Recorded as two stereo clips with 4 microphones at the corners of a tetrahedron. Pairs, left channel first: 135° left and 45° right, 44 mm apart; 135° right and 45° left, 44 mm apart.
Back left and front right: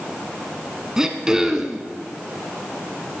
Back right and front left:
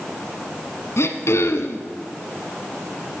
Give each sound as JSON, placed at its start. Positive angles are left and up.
{"t": 1.0, "sound": "throat clearing", "azimuth_deg": -125, "distance_m": 1.1}